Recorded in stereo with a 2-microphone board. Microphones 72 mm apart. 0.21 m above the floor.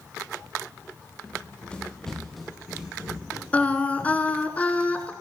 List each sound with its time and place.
1.2 s running footsteps: 25° left (ahead or behind), 2.5 m; by 4.5 s 25° right (ahead or behind), 4 m
3.5 s singing: 20° left (ahead or behind), 1.2 m